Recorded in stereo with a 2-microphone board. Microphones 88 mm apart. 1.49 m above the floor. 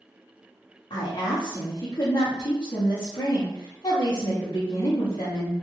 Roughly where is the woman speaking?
Left.